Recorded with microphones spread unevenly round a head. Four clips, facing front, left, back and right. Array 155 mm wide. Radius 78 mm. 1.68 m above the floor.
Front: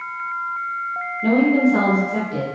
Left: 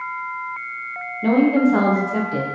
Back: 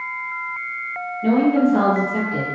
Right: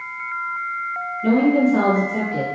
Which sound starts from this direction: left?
A woman speaking, at 1.2 s.